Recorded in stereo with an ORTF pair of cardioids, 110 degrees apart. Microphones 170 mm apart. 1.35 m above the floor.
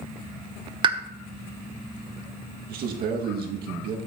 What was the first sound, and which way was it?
A pop, 30° right.